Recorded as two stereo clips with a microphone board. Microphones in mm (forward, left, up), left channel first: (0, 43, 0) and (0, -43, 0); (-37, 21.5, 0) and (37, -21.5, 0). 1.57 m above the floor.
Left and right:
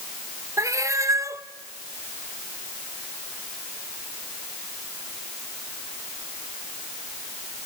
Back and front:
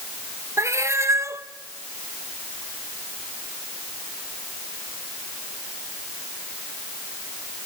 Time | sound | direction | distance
0.6 | a cat meowing | 65° right | 0.9 m